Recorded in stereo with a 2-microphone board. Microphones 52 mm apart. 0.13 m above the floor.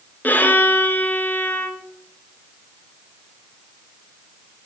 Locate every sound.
0.2 s a violin: 35° left (ahead or behind), 0.6 m